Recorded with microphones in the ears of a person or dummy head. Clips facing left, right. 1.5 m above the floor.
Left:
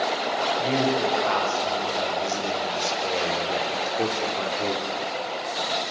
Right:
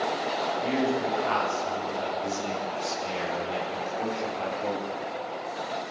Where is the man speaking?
45° left (ahead or behind), 7.5 m; by 4.8 s 65° left (ahead or behind), 4.5 m.